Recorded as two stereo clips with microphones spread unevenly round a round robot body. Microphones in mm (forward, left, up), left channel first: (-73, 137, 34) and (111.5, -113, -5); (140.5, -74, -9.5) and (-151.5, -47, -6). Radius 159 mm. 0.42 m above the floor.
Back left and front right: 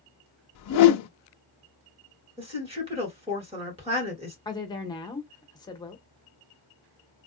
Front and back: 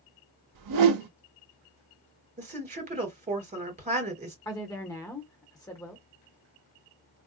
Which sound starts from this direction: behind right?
A woman speaking, at 2.4 s.